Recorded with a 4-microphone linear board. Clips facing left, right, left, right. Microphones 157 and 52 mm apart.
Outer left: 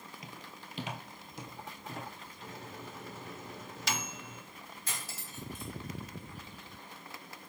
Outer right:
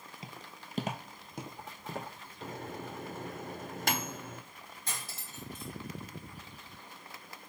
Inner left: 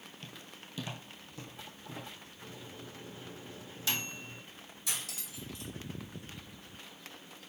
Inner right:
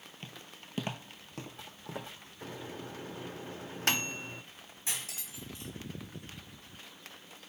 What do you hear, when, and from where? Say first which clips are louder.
0.2 s footsteps: even, inner right 2 dB; 30° right (ahead or behind), 0.7 m; by 2.1 s 55° right (ahead or behind), 1.4 m
2.4 s a microwave: outer right 6 dB, inner right 6 dB; 55° right (ahead or behind), 0.5 m
4.9 s cutlery clinking: outer right 2 dB, even; 30° right (ahead or behind), 2 m